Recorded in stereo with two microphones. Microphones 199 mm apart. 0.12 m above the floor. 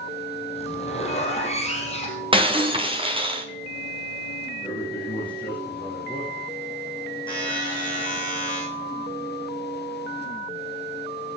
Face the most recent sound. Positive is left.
turn(degrees=25)  # may be behind; listen again after turning